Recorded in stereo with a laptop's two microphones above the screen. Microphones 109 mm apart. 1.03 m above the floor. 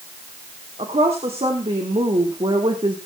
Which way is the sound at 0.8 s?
60° right (ahead or behind).